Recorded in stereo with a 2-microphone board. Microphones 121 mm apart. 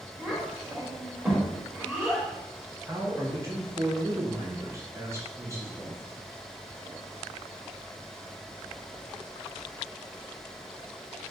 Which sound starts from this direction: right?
A man speaking, at 2.9 s.